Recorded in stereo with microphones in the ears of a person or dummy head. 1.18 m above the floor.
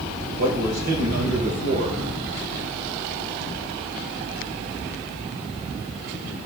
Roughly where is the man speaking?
Right.